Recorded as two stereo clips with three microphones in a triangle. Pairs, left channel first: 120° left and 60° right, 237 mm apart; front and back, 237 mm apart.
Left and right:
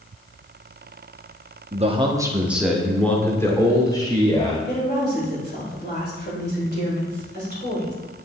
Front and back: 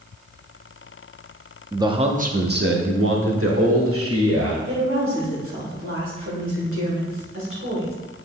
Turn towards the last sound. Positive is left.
turn(degrees=160)